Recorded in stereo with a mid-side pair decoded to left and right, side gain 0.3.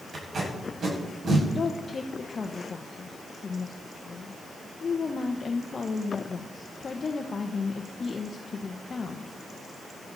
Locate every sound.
0.1 s tape being pulled: 60° right, 7 m
1.6 s a woman speaking: 50° left, 1.1 m